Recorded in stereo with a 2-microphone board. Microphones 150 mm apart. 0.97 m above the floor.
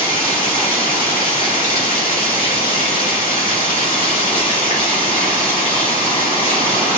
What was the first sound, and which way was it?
Running water, 75° left (ahead or behind).